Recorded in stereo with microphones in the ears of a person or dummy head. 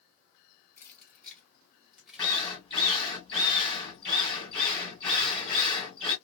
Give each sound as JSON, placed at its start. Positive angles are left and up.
{"t": 0.8, "sound": "keys jangling", "side_deg": 15, "distance_m": 1.2}
{"t": 2.2, "sound": "a drill", "side_deg": 10, "distance_m": 2.5}